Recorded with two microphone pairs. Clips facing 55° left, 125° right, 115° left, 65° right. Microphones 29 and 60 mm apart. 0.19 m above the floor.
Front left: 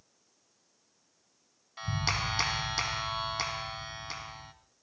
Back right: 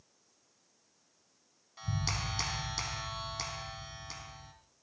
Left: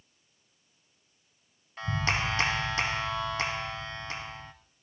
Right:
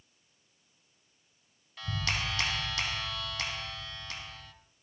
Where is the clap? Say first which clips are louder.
Front left 5 dB, left 5 dB; 80° left, 1.3 m.